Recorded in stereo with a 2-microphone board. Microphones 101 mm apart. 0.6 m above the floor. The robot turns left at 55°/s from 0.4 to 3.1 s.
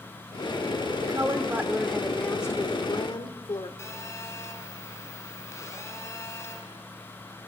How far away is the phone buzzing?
About 4.5 m.